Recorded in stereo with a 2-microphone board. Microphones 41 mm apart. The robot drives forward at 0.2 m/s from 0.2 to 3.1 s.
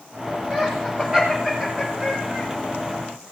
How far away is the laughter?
About 5 m.